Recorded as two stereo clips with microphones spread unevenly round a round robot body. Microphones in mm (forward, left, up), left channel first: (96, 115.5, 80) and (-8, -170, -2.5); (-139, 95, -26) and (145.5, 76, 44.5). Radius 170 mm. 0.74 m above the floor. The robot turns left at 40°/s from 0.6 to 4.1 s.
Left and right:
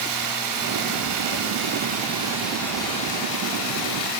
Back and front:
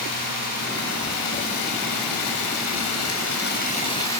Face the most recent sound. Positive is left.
turn(degrees=100)